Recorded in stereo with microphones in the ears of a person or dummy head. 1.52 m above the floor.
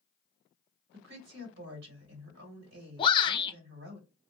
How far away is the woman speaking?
About 1.9 m.